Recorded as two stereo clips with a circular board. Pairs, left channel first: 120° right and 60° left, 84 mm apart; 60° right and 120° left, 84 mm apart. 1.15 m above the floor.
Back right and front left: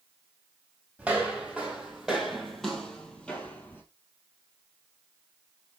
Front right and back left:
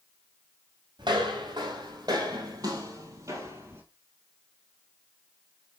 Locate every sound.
1.0 s footsteps: 135° left, 3 m; by 3.8 s 175° left, 1.9 m